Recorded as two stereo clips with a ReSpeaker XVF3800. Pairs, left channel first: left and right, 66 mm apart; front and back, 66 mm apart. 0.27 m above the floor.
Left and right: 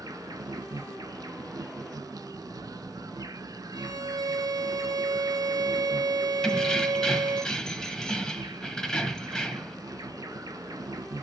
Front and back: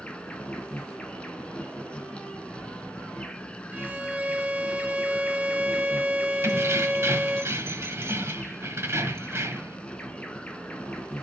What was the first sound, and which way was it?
An insect, 75° right.